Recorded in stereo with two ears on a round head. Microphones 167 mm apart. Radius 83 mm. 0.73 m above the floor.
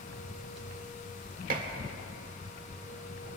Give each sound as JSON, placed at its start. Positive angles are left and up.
{"t": 1.5, "sound": "dishes clattering", "side_deg": -45, "distance_m": 1.5}